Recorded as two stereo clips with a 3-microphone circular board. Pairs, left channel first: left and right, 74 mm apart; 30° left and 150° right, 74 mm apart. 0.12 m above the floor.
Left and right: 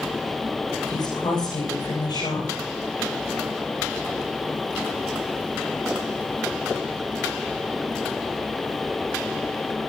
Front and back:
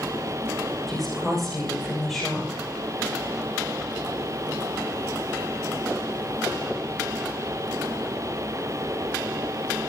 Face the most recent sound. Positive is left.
turn(degrees=120)